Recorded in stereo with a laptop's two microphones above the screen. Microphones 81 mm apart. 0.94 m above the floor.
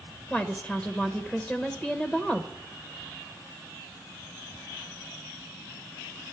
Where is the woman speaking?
5° left (ahead or behind), 0.9 m.